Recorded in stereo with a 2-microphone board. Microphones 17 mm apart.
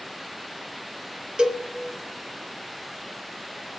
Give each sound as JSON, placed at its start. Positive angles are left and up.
{"t": 1.4, "sound": "a cowbell", "side_deg": -70, "distance_m": 1.1}